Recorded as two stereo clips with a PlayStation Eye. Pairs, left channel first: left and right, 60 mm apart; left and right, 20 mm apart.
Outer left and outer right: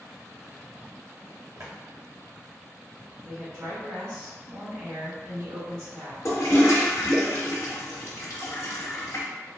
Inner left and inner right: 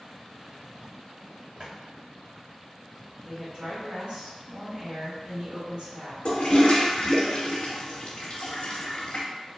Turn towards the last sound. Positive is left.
turn(degrees=55)  # may be behind; listen again after turning